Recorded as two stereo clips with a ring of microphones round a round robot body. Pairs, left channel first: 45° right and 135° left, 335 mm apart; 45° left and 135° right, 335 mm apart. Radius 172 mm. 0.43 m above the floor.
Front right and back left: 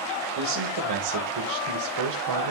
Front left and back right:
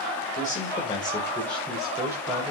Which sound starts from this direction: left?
A man speaking, at 0.4 s.